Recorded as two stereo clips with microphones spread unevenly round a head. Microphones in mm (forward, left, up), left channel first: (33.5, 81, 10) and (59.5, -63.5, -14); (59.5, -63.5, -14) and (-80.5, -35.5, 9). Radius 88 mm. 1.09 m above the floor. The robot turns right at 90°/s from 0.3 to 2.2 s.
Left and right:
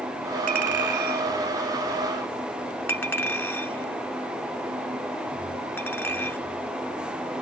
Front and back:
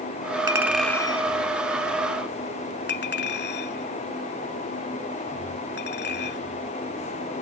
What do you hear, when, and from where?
0.5 s a clink: 130° right; by 6.4 s 25° left